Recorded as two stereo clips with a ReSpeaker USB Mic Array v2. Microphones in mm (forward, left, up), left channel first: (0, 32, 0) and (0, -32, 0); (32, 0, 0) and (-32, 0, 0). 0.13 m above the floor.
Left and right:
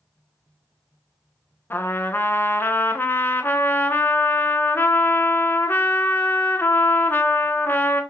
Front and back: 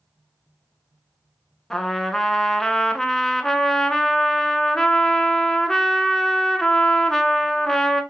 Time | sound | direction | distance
1.7 | a trumpet | 75° left | 0.5 m